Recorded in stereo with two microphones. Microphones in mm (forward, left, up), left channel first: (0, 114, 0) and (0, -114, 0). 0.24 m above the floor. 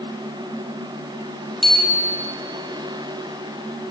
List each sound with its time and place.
1.6 s a bicycle bell: centre (ahead or behind), 6 m